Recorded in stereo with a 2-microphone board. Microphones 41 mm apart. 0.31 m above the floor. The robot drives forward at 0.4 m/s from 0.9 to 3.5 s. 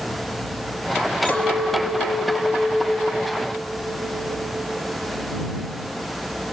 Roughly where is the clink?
Left.